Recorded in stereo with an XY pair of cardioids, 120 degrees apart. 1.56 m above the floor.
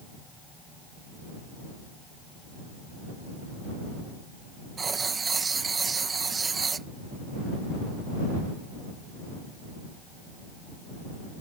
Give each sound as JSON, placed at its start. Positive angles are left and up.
{"t": 4.8, "sound": "writing", "azimuth_deg": -30}